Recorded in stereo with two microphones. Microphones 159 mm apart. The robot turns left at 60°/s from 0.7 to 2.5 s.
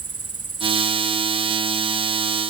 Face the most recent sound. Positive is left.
turn(degrees=10)